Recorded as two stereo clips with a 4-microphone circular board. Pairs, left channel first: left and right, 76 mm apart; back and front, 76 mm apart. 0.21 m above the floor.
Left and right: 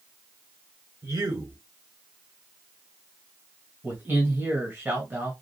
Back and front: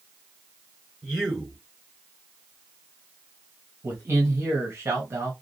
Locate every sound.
1.0 s a man speaking: 70° right, 4 m
3.8 s a man speaking: 40° right, 1.7 m